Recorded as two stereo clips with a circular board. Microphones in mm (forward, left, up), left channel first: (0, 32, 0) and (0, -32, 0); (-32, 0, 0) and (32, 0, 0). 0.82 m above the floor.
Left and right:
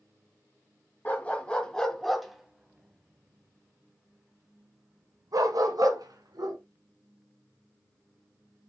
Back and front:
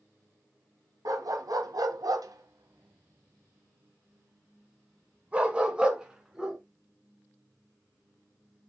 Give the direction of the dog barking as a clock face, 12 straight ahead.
11 o'clock.